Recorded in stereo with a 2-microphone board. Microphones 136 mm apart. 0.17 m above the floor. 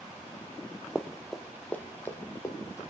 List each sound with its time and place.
0.9 s running footsteps: 5° right (ahead or behind), 0.5 m; by 2.8 s 20° left (ahead or behind), 1.5 m